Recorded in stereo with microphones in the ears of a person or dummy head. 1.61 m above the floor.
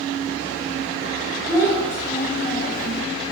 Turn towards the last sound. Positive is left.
turn(degrees=25)  # may be behind; listen again after turning